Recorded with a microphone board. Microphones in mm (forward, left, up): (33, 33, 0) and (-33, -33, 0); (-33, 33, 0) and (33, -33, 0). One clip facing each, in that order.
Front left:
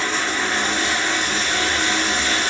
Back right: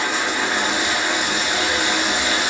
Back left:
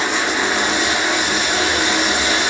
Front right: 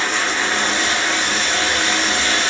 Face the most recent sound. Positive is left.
turn(degrees=180)